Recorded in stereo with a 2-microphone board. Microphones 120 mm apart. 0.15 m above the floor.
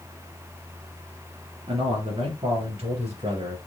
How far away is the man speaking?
About 3 m.